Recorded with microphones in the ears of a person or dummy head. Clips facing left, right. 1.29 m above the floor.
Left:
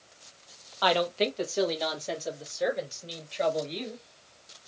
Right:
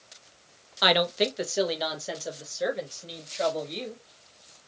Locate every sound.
0.8 s a woman speaking: 20° right (ahead or behind), 0.8 m; by 4.0 s 5° left (ahead or behind), 2.5 m